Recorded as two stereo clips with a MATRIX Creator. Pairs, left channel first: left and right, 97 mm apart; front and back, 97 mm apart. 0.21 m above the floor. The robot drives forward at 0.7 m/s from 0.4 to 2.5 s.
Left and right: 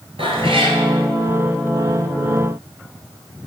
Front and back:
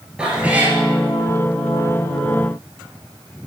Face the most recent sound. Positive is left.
turn(degrees=-145)